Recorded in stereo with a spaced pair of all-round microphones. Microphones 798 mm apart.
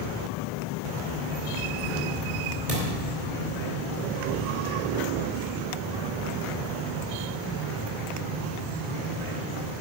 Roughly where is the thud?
Right.